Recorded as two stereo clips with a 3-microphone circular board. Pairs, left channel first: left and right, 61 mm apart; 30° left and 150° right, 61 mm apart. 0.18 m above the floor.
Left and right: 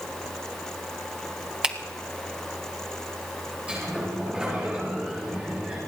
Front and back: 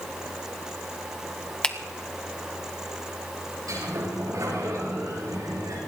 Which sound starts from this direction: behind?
A sliding door, at 3.7 s.